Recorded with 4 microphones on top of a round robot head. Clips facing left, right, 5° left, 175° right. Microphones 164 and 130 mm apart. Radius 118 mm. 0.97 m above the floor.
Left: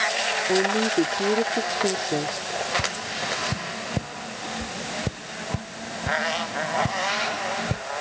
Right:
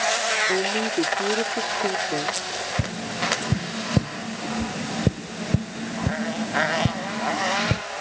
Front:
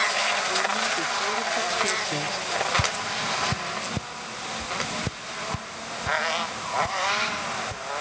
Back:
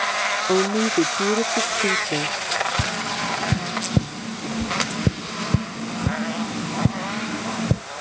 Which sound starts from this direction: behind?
A woman speaking, at 0.5 s.